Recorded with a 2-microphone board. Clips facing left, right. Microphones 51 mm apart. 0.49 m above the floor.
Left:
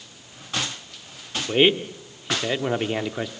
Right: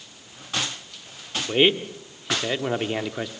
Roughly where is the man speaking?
Centre.